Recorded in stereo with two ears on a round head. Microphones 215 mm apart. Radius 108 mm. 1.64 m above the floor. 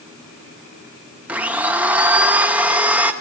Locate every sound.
1.3 s a blender: 5° right (ahead or behind), 1.0 m